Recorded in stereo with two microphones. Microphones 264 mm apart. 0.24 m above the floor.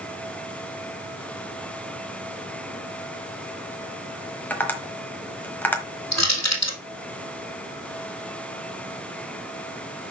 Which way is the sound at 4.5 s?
5° left (ahead or behind).